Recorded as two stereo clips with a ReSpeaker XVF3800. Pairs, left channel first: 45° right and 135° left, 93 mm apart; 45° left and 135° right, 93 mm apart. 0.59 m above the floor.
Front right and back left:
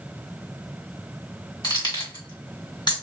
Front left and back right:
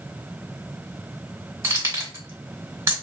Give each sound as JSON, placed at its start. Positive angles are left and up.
{"t": 1.6, "sound": "keys jangling", "azimuth_deg": -85, "distance_m": 1.5}